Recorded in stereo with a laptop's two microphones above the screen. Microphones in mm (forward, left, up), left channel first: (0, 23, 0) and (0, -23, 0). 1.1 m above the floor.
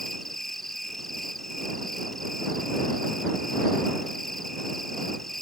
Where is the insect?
5° left (ahead or behind).